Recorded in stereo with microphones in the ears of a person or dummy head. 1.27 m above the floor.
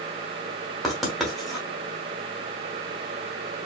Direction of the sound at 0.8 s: Centre (ahead or behind).